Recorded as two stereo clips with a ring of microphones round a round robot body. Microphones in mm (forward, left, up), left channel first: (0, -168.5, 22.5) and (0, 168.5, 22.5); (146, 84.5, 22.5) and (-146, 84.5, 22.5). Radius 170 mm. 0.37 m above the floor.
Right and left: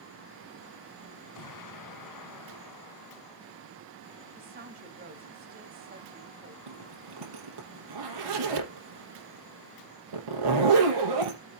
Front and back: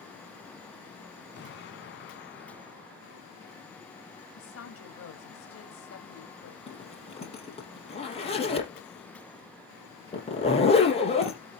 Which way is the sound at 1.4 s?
60° right.